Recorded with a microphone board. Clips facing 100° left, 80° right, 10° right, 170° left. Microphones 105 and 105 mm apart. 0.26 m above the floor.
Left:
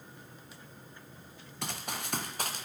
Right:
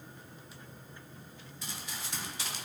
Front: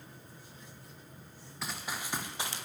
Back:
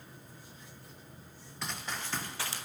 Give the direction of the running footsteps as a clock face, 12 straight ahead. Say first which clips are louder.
Left 6 dB, even; 9 o'clock.